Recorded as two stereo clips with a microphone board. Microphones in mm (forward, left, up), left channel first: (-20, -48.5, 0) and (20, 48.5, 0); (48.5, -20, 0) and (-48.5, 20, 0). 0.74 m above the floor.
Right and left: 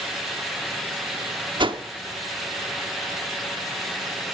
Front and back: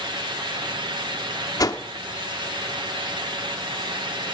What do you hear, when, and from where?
1.6 s a whoosh: 30° left, 0.9 m